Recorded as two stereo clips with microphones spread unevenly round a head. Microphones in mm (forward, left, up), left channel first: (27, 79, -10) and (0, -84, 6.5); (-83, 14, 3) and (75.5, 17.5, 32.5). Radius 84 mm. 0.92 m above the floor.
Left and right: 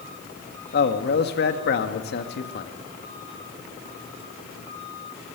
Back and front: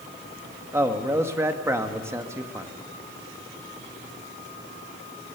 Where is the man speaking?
80° left, 1.6 m.